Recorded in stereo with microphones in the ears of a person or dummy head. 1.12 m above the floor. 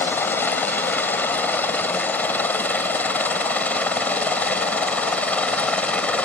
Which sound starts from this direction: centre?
A helicopter, at 0.0 s.